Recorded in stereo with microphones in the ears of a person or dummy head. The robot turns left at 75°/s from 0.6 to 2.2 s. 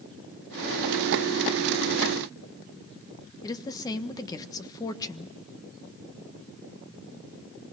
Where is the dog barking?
No dog barking in this recording.